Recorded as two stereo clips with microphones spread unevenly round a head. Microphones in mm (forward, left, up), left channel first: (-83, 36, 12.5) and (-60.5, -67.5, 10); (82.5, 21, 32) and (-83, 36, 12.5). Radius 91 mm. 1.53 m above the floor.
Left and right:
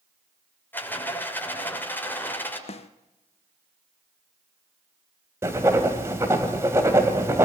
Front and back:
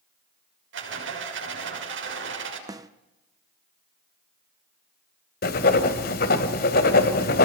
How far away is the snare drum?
About 0.9 m.